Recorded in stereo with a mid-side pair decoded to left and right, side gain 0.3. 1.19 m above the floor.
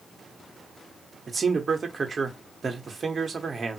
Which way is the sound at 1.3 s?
45° right.